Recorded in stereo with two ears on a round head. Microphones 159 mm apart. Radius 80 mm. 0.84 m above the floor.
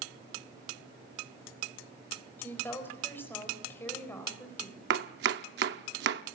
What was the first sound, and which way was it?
A woman speaking, 15° left (ahead or behind).